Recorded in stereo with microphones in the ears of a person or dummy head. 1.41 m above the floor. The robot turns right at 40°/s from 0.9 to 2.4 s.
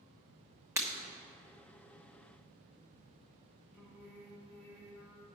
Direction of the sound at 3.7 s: 10° right (ahead or behind).